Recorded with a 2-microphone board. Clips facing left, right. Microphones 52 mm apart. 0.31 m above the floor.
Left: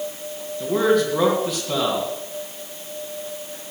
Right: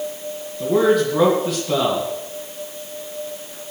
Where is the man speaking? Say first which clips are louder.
Right 2 dB; 5° right (ahead or behind), 3.5 m.